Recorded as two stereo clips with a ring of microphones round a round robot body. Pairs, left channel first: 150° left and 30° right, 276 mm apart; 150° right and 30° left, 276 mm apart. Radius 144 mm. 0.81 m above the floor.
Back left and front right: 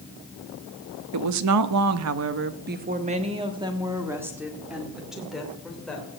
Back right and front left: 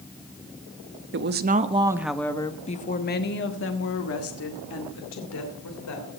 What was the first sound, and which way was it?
A woman speaking, 15° right.